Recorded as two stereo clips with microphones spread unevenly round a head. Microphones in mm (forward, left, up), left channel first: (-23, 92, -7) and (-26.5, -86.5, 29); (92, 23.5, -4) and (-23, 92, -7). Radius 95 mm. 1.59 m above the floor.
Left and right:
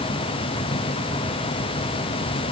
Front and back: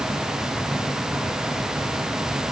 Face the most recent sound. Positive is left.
No sound to turn to.